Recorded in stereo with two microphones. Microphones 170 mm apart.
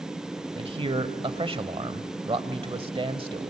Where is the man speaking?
30° right (ahead or behind), 1.1 m.